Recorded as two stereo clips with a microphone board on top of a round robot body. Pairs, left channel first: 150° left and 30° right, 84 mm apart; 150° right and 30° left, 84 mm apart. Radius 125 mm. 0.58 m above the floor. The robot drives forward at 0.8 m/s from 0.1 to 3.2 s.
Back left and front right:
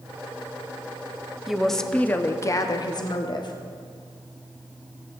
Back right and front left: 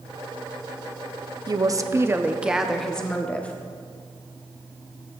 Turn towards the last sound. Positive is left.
turn(degrees=135)